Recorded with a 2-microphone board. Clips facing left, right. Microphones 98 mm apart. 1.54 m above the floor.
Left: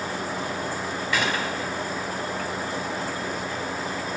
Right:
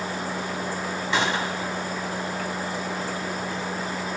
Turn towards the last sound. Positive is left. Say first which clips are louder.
# right 1 dB
turn(degrees=-25)  # may be behind; listen again after turning